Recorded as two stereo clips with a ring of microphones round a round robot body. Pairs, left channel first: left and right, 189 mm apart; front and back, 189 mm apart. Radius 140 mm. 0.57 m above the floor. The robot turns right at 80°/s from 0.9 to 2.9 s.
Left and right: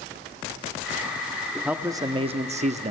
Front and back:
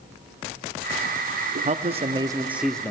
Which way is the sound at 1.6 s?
175° right.